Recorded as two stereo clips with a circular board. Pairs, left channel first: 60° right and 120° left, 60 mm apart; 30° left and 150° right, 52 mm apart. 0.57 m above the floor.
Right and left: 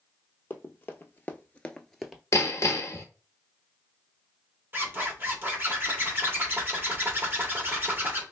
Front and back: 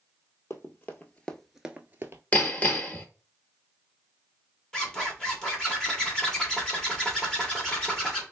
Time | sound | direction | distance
0.5 | running footsteps | 10° right | 1.1 m
2.3 | hammering | 30° right | 0.9 m
4.7 | a zipper | 100° left | 1.5 m